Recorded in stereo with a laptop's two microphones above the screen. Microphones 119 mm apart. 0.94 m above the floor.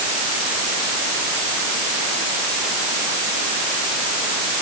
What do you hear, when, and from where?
Only background noise.